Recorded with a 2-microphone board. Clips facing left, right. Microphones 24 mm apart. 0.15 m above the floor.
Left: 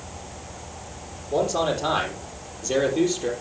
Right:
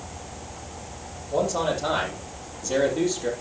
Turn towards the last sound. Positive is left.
turn(degrees=15)  # may be behind; listen again after turning